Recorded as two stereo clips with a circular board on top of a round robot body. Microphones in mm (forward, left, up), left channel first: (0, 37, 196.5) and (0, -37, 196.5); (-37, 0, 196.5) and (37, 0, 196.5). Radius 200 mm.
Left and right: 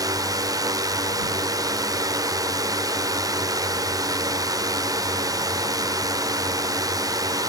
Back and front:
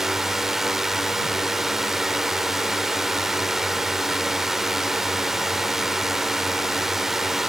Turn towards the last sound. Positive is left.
turn(degrees=-85)